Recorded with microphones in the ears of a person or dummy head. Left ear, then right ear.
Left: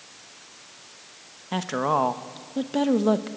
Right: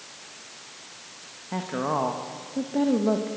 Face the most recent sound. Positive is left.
turn(degrees=70)  # may be behind; listen again after turning